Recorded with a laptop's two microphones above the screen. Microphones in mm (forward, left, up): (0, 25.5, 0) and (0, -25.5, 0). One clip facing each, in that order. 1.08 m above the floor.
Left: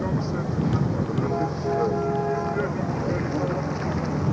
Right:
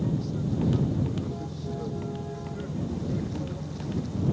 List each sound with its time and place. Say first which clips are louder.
0.0 s a vehicle: left 4 dB; 60° left (ahead or behind)